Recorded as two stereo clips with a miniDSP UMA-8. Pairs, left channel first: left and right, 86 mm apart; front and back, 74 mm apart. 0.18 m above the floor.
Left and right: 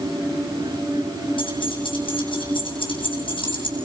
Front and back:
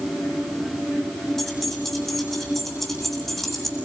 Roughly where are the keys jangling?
Left.